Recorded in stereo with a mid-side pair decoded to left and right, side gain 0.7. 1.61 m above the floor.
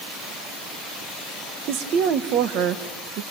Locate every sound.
1.7 s a woman speaking: 55° right, 1.5 m